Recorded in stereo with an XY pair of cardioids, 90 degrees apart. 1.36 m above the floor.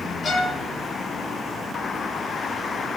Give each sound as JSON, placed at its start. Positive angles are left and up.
{"t": 0.2, "sound": "a violin", "azimuth_deg": 50, "distance_m": 3.5}